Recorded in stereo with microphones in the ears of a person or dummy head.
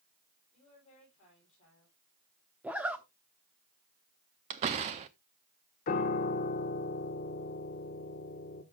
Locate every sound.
0.5 s a woman speaking: 40° left (ahead or behind), 9 m
2.6 s a zipper: 10° right (ahead or behind), 0.8 m
4.5 s a door slam: 30° right (ahead or behind), 0.5 m
5.9 s a piano: 45° left (ahead or behind), 1.2 m